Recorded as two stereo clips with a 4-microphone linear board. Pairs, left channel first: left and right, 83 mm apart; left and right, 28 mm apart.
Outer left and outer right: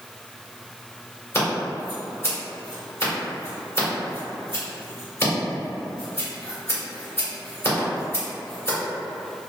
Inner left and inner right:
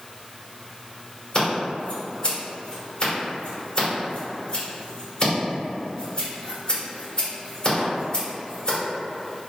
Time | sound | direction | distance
1.3 | scissors | 35° left (ahead or behind) | 1.9 m